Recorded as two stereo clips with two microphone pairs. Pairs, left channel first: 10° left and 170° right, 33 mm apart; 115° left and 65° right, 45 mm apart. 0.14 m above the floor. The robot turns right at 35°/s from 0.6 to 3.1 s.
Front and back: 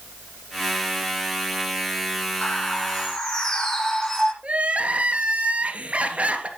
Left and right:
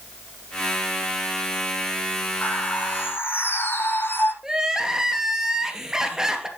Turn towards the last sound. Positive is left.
turn(degrees=-140)